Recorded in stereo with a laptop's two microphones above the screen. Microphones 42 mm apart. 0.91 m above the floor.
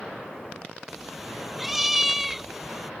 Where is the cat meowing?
5° right (ahead or behind).